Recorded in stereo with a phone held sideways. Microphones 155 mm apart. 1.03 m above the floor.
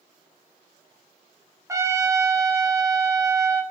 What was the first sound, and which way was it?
A trumpet, 20° right (ahead or behind).